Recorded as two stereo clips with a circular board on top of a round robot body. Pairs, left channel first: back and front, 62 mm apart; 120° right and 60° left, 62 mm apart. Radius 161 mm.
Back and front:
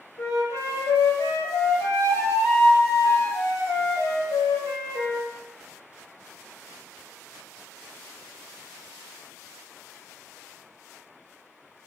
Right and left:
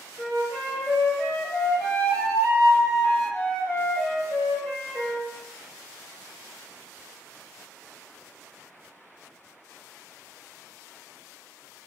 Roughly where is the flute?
Behind.